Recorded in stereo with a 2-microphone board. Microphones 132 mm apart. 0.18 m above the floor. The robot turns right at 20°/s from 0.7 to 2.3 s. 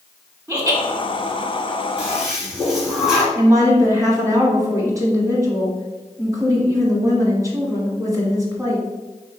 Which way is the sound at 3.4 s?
25° right (ahead or behind).